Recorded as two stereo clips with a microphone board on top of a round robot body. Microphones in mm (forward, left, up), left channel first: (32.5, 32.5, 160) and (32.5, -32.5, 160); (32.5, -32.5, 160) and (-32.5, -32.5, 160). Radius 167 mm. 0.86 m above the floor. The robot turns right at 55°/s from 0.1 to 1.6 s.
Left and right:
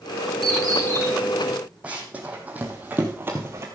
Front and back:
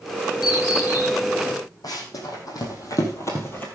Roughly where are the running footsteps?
Ahead.